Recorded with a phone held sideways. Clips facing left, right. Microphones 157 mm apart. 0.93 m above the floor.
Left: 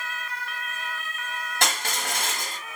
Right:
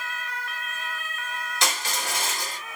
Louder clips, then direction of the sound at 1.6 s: Left 1 dB; 55° left (ahead or behind).